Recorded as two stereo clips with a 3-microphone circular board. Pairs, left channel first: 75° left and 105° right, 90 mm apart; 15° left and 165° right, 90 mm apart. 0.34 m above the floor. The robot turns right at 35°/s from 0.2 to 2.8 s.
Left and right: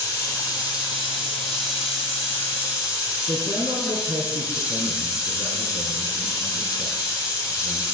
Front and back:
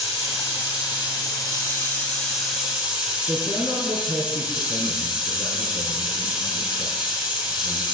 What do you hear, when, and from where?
0.0 s running water: 25° left, 4.5 m; by 7.9 s 120° left, 4.5 m
3.3 s a man speaking: 110° right, 3.5 m